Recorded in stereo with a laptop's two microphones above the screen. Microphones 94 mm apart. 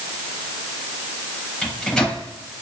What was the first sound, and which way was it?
A microwave, 10° left (ahead or behind).